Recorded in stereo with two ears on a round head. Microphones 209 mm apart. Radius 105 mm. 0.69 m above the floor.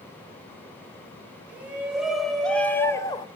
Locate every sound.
1.5 s a shout: 5° right (ahead or behind), 4 m; by 3.3 s 20° left (ahead or behind), 1.9 m